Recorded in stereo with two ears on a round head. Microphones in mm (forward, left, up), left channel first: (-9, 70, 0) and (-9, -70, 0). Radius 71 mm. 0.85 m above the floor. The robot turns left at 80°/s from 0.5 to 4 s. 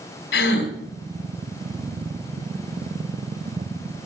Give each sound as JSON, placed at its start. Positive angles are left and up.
{"t": 0.3, "sound": "a gasp", "side_deg": 90, "distance_m": 3.5}